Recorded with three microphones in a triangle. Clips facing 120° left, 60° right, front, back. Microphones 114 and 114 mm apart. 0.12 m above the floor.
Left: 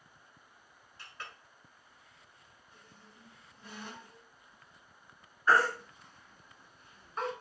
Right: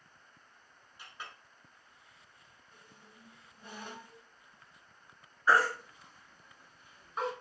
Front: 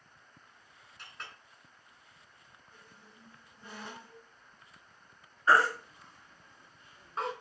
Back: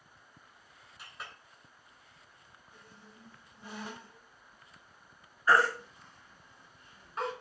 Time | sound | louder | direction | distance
1.0 | a clink | even, back 1 dB | 105° right | 0.8 m
2.7 | a squeak | even, back 3 dB | 105° right | 1.8 m
5.5 | a baby crying | even, even | 10° left | 1.2 m